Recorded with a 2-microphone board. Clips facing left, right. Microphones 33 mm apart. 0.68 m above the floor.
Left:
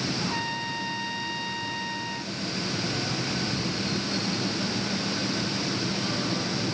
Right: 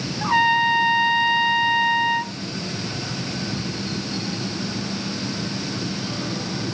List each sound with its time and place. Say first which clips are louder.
0.2 s a trumpet: right 12 dB; 45° right (ahead or behind)